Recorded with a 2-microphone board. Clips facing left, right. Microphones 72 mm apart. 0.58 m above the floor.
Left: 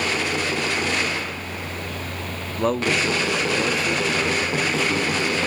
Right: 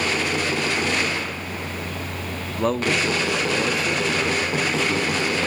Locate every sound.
2.6 s a man speaking: centre (ahead or behind), 0.8 m